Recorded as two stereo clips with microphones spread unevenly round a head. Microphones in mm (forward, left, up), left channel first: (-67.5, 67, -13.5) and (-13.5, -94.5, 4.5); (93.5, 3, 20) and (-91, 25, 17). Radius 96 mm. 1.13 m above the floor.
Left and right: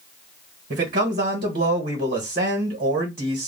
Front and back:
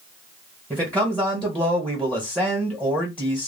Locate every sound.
0.7 s a man speaking: 105° right, 1.2 m